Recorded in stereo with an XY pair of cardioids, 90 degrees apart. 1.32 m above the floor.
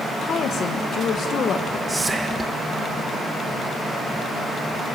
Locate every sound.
0.2 s a woman speaking: 70° left, 1.2 m
1.9 s whispering: 20° right, 0.9 m